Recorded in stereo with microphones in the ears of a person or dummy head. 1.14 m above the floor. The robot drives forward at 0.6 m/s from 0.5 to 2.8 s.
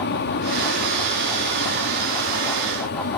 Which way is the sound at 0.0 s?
55° left (ahead or behind).